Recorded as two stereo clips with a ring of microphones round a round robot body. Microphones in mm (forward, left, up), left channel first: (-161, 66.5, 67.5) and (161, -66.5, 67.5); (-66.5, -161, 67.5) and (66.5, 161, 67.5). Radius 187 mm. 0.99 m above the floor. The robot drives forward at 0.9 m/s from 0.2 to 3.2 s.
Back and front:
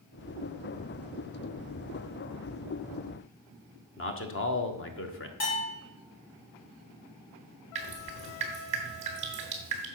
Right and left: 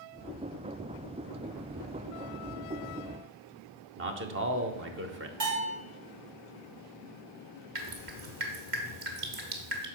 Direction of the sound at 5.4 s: 110° left.